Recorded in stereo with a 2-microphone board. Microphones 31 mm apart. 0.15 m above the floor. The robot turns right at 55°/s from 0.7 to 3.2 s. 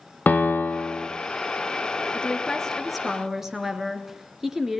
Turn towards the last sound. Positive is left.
turn(degrees=-170)